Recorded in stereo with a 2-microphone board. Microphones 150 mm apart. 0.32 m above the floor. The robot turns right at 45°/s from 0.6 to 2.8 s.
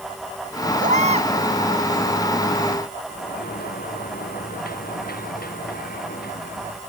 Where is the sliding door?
85° left.